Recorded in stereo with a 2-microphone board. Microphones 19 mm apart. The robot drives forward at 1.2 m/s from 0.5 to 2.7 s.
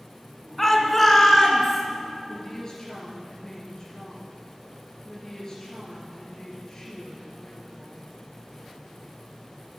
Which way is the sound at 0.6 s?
15° left (ahead or behind).